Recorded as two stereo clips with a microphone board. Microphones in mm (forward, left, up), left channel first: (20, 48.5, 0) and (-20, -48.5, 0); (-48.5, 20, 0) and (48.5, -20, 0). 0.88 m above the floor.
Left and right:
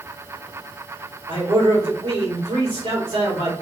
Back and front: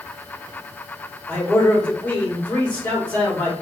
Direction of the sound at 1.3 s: 130° right.